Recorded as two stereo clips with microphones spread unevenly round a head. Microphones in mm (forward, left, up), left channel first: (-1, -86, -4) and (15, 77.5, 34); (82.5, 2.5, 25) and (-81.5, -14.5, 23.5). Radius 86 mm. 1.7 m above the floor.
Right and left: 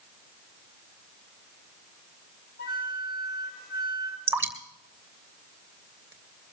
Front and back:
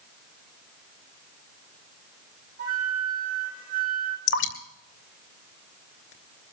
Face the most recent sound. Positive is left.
turn(degrees=5)